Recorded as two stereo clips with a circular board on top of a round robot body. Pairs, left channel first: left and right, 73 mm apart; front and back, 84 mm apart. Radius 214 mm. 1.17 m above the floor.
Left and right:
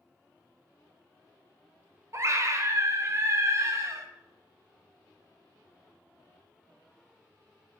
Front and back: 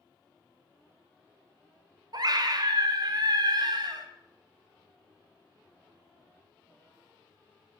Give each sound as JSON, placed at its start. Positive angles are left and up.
{"t": 2.1, "sound": "a scream", "azimuth_deg": -140, "distance_m": 1.2}